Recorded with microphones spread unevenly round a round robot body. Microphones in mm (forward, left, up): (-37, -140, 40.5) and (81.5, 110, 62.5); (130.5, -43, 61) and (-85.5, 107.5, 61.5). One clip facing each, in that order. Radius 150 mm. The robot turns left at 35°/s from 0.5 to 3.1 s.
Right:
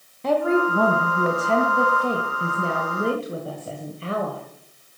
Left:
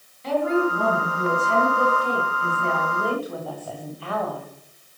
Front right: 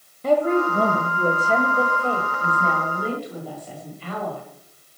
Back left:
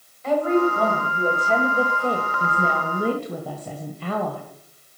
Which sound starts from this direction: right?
A woman speaking, at 0.2 s.